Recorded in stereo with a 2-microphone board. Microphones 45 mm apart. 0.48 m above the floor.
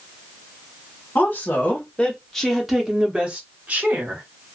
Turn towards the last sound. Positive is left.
turn(degrees=-45)  # may be behind; listen again after turning